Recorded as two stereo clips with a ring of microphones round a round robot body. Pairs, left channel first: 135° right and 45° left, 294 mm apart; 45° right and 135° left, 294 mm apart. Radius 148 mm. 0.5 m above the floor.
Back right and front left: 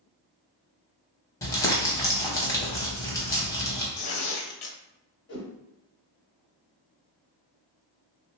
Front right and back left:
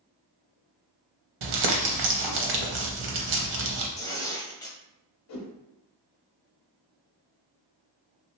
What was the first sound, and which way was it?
Crumpling, 145° left.